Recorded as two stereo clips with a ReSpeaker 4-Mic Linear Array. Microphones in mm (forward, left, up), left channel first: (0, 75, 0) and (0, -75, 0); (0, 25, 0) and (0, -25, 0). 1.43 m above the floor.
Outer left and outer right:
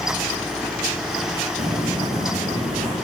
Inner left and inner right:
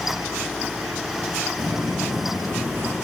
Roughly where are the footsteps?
Right.